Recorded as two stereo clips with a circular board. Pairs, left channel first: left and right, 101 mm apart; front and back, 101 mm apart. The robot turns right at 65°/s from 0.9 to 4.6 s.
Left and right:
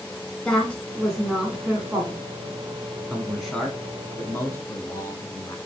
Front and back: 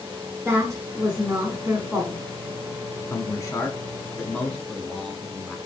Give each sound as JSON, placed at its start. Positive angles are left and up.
{"t": 0.5, "sound": "a woman speaking", "azimuth_deg": 165, "distance_m": 1.1}
{"t": 3.1, "sound": "a man speaking", "azimuth_deg": -20, "distance_m": 1.1}